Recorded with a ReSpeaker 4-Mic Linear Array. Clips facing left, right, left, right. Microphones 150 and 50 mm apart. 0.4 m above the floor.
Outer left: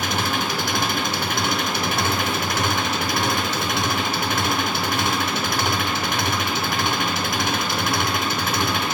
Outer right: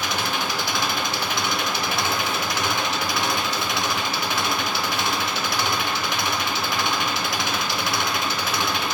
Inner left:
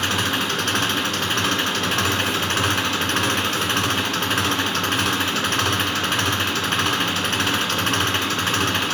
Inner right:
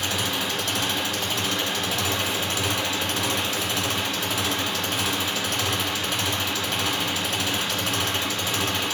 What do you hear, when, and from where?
0.0 s an engine running: 50° left (ahead or behind), 2.5 m